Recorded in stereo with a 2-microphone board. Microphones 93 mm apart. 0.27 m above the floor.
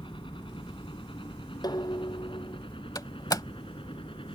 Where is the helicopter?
60° left (ahead or behind); by 4.4 s 65° left (ahead or behind).